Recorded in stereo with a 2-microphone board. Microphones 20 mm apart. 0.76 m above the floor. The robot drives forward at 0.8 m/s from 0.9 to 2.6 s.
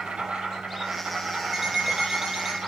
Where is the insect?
75° right (ahead or behind), 5.5 m; by 2.7 s 85° right, 5.5 m.